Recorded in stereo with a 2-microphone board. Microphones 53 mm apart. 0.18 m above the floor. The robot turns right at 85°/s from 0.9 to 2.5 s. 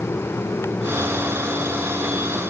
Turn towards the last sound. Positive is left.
No sound to turn to.